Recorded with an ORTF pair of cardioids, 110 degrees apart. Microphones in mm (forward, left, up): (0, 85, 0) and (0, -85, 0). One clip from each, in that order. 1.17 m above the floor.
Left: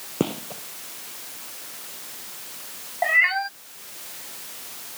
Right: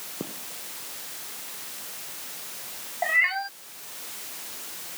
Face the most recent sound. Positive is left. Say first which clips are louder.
# left 4 dB
turn(degrees=25)